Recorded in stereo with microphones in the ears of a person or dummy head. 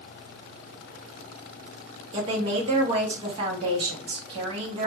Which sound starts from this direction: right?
A woman speaking, at 2.1 s.